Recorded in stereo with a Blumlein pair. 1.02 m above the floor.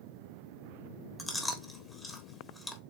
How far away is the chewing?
About 1.2 m.